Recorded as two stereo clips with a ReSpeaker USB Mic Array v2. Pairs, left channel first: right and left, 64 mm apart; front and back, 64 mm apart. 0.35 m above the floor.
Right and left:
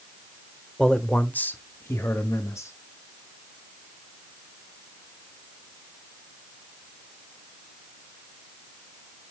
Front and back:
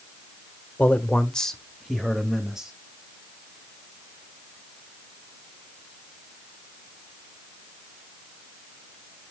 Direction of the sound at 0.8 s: 25° right.